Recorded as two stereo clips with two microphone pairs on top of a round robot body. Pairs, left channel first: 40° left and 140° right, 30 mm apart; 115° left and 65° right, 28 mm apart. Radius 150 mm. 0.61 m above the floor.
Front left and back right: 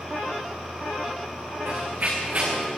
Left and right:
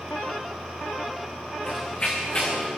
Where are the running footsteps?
175° right, 4 m; by 2.7 s 170° left, 4.5 m.